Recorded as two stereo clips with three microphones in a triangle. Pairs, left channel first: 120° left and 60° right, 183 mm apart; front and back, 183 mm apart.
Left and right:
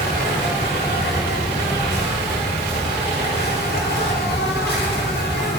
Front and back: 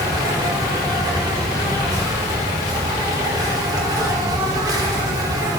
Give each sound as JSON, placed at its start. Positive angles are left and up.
{"t": 0.0, "sound": "an insect", "azimuth_deg": 110, "distance_m": 4.5}